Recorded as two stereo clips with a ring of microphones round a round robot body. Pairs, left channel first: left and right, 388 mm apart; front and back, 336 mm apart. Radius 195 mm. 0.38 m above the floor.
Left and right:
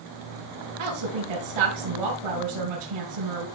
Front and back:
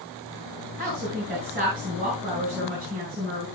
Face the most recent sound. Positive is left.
turn(degrees=-110)